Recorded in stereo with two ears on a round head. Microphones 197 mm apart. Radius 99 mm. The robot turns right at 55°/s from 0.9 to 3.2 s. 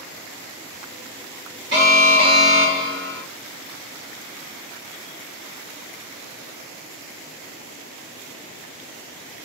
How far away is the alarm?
About 3 m.